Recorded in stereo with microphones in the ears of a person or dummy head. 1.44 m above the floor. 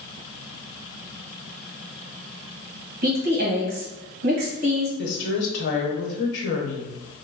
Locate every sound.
3.0 s a woman speaking: 50° right (ahead or behind), 1.4 m
5.0 s a woman speaking: 70° left (ahead or behind), 1.0 m